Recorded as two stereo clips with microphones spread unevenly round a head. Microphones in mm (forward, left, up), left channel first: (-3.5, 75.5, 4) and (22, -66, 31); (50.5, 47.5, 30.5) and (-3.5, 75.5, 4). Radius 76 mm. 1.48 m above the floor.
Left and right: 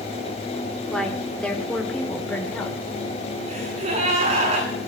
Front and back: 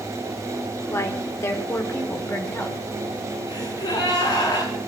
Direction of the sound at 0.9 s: 15° left.